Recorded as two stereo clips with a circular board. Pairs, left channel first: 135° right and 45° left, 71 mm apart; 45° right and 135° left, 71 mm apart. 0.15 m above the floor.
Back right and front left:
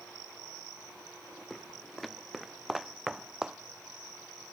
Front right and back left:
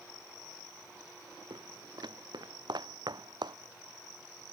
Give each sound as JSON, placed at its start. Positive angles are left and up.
{"t": 1.5, "sound": "footsteps", "azimuth_deg": 140}